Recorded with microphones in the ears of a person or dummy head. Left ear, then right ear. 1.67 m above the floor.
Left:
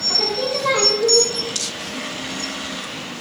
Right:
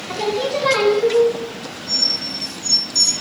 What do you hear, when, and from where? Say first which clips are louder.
0.1 s singing: right 2 dB; 10° right (ahead or behind), 1.0 m